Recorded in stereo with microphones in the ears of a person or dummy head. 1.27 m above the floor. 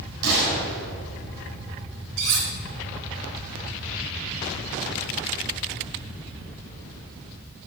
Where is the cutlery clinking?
70° right (ahead or behind), 4 m.